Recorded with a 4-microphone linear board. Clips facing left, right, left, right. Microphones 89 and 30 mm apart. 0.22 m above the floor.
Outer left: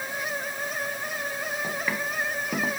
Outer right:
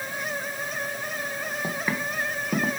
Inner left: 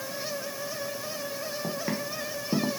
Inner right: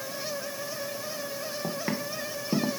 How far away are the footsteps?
About 1.9 m.